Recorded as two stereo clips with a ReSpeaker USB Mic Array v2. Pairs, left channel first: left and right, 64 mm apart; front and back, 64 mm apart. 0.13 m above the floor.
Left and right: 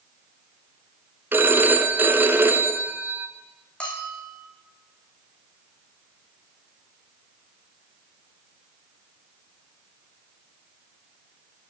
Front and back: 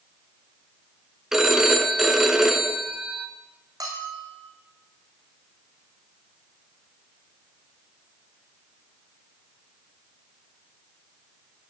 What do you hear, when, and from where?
1.3 s a phone ringing: 100° right, 0.9 m
3.8 s a bell: 160° left, 2.5 m